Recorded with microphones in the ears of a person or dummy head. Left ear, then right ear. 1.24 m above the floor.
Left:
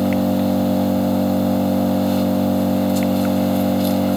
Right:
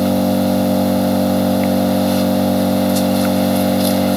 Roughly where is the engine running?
Centre.